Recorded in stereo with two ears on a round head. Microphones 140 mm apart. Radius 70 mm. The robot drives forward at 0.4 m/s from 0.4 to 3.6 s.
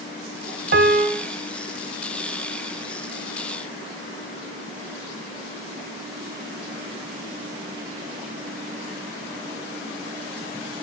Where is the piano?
65° right (ahead or behind), 0.9 m; by 1.2 s 55° right (ahead or behind), 1.0 m.